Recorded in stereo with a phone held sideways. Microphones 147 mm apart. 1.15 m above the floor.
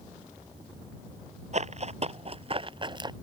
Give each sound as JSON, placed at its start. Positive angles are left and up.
{"t": 1.5, "sound": "running footsteps", "side_deg": -50}